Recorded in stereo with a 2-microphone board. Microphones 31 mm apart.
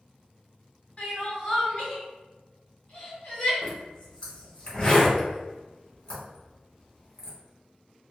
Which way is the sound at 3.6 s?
40° left (ahead or behind).